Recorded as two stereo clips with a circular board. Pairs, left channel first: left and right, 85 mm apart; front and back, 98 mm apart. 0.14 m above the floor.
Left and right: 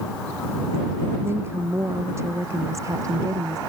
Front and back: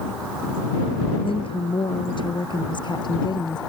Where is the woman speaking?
30° right; by 3.6 s 45° right.